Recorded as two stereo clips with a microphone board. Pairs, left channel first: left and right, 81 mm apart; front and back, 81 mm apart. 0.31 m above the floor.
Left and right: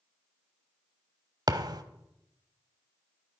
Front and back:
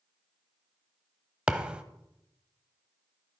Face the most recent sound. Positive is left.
turn(degrees=-105)